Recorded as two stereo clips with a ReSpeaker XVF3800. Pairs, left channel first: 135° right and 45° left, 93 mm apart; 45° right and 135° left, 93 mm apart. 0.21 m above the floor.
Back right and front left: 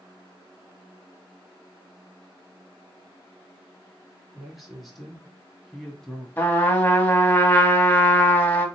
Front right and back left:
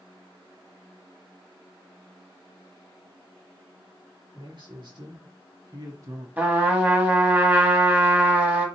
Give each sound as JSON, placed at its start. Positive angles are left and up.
{"t": 4.3, "sound": "a man speaking", "azimuth_deg": 130, "distance_m": 1.9}
{"t": 6.4, "sound": "a trumpet", "azimuth_deg": -175, "distance_m": 0.9}